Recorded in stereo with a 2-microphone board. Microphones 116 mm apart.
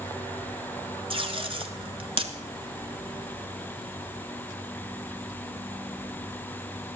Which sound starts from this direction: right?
Tape being pulled, at 1.1 s.